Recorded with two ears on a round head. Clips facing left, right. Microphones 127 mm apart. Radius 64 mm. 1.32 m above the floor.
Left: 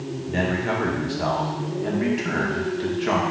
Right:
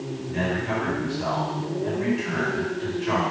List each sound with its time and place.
0.3 s a man speaking: 70° left (ahead or behind), 2 m